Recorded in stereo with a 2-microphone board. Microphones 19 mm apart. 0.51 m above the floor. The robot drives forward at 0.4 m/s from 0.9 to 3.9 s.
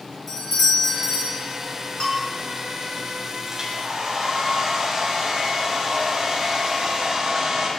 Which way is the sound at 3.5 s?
25° right (ahead or behind).